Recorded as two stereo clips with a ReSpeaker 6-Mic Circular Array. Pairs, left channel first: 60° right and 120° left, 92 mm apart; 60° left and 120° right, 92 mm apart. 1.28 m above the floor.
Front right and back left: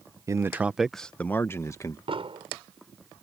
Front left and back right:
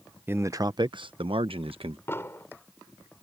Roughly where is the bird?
No bird in this recording.